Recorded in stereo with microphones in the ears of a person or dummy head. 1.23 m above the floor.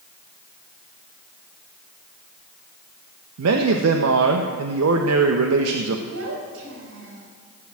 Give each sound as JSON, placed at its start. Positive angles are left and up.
{"t": 3.4, "sound": "a man speaking", "side_deg": -85, "distance_m": 1.1}
{"t": 6.1, "sound": "a child speaking", "side_deg": -80, "distance_m": 5.0}